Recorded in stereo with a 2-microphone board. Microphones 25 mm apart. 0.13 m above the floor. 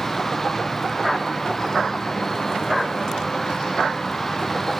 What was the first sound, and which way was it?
An insect, 20° left (ahead or behind).